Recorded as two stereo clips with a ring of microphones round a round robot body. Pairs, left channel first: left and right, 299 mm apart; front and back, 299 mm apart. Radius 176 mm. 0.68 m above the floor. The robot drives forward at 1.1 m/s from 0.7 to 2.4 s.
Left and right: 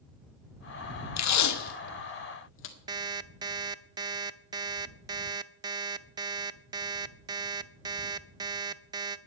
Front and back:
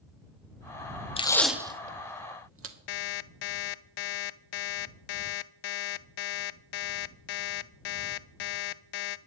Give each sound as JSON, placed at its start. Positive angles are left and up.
{"t": 1.2, "sound": "tape being pulled", "azimuth_deg": 70, "distance_m": 1.2}
{"t": 2.9, "sound": "an alarm clock", "azimuth_deg": -10, "distance_m": 0.5}